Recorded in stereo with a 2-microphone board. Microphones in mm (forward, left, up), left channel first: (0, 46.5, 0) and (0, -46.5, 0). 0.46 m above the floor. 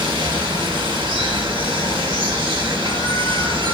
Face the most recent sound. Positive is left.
turn(degrees=-75)  # may be behind; listen again after turning